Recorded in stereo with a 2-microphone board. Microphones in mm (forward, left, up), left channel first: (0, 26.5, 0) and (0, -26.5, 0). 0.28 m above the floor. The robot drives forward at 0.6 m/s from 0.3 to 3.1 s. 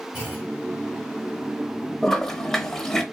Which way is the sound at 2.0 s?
5° left (ahead or behind).